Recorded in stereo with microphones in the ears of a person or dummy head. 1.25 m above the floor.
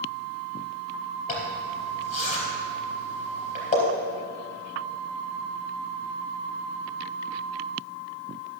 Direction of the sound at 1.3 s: 40° left (ahead or behind).